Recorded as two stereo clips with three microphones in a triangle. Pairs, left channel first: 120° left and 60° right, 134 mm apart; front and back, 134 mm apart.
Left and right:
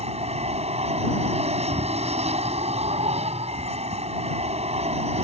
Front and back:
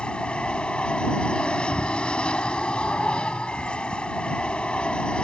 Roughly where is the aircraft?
Right.